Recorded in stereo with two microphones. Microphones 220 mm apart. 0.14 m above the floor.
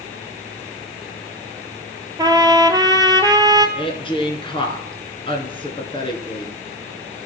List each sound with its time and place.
2.2 s a trumpet: 20° right (ahead or behind), 0.8 m
3.8 s a woman speaking: 25° left (ahead or behind), 1.5 m